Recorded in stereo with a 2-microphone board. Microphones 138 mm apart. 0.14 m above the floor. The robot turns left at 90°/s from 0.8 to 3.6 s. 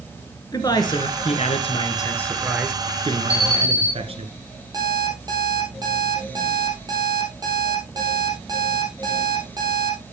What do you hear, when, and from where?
0.5 s a man speaking: 140° left, 1.6 m; by 4.3 s 110° right, 1.6 m
3.3 s an alarm: 10° right (ahead or behind), 2.5 m; by 3.9 s 15° left (ahead or behind), 2.5 m
4.7 s an alarm clock: 30° right (ahead or behind), 3 m